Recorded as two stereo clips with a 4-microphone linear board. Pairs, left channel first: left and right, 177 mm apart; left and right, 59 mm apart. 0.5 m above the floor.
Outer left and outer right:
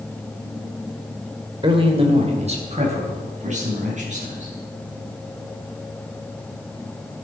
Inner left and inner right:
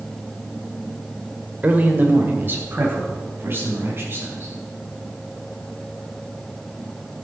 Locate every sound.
1.6 s a man speaking: 30° right (ahead or behind), 2.0 m; by 4.5 s 45° right (ahead or behind), 6 m